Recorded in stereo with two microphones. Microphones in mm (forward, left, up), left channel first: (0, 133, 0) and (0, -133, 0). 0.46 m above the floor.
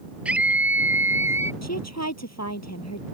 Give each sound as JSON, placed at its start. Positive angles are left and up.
{"t": 0.2, "sound": "a scream", "side_deg": -5}
{"t": 1.6, "sound": "a woman speaking", "side_deg": 65}